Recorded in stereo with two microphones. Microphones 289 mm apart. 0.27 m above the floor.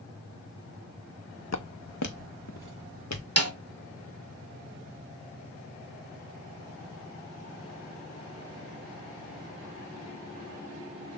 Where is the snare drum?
55° right (ahead or behind), 0.9 m.